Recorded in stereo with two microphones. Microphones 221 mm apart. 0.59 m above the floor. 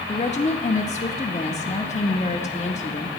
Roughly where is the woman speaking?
Left.